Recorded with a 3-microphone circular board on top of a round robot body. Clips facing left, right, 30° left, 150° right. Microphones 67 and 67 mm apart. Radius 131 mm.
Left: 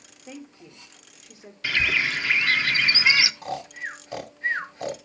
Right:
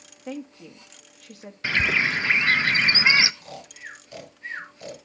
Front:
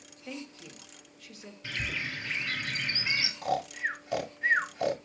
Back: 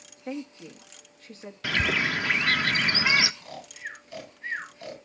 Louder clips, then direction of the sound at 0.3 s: Right 6 dB, back 7 dB; 100° right.